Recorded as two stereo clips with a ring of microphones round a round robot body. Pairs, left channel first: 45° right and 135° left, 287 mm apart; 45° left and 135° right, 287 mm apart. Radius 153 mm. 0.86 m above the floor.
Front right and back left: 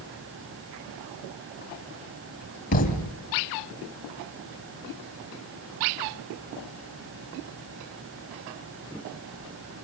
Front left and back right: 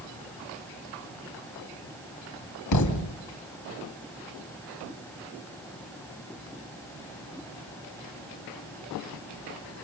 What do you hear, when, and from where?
2.7 s a thud: 15° left, 3 m